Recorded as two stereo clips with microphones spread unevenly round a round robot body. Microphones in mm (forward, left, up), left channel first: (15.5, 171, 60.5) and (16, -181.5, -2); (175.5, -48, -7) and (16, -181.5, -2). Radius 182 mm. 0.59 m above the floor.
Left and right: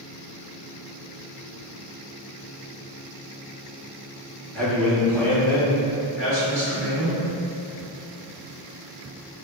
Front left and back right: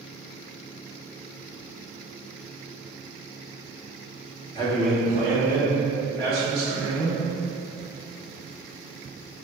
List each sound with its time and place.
4.5 s a man speaking: 10° right, 0.8 m; by 7.2 s straight behind, 3 m